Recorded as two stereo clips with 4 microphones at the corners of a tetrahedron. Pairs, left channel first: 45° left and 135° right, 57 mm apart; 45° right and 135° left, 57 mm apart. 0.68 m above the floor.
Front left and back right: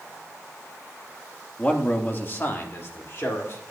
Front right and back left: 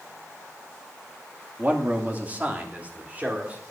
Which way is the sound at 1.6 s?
95° left.